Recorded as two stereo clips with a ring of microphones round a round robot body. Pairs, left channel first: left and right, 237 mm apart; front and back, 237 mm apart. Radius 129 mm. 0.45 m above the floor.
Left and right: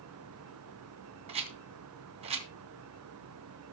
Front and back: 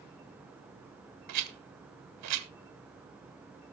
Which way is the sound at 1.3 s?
160° right.